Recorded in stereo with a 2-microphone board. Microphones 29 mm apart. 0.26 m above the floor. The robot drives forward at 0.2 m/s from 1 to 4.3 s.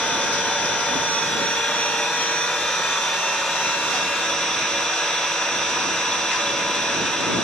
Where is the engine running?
45° left (ahead or behind), 0.8 m; by 7.5 s 25° left (ahead or behind), 1.3 m.